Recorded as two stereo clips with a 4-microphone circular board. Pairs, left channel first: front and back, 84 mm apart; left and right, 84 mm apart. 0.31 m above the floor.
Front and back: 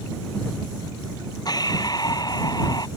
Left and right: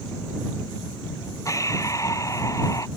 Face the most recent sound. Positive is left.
turn(degrees=40)